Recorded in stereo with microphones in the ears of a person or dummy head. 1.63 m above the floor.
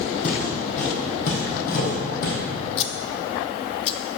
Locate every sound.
0.2 s footsteps: 40° left (ahead or behind), 3.5 m; by 2.4 s 55° left (ahead or behind), 3 m
2.8 s scissors: 35° left (ahead or behind), 0.6 m